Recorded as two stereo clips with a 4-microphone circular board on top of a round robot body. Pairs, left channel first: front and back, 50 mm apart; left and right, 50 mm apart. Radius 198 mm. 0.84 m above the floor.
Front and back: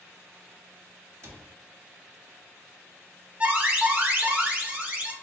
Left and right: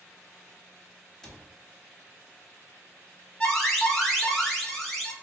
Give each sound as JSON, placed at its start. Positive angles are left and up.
{"t": 1.2, "sound": "a cupboard door", "azimuth_deg": 165, "distance_m": 1.2}
{"t": 3.4, "sound": "an alarm", "azimuth_deg": 165, "distance_m": 1.4}